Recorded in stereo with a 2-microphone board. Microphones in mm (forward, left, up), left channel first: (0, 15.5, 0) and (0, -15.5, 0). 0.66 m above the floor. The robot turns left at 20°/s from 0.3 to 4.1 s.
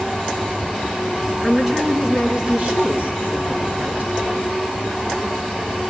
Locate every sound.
1.4 s a woman speaking: 10° right, 7 m; by 4.1 s 65° right, 7 m